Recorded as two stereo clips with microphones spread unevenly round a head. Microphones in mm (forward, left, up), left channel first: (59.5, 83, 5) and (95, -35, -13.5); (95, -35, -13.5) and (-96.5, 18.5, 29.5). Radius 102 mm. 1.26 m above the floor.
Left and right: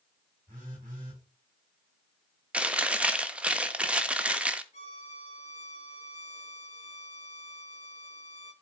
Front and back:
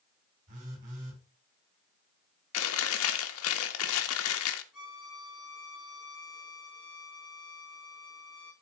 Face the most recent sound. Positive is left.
turn(degrees=75)